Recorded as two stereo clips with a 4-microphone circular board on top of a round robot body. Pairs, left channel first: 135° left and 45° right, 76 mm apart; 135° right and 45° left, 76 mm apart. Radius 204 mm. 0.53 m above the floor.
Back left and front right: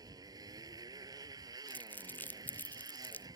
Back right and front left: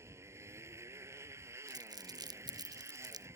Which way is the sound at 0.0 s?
10° right.